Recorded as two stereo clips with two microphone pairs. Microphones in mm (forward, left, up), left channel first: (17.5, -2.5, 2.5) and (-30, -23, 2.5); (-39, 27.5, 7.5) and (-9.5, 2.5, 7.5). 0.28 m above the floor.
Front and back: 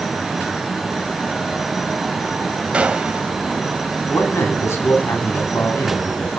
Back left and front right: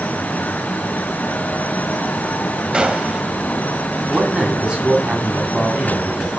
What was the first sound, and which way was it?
A gunshot, 100° right.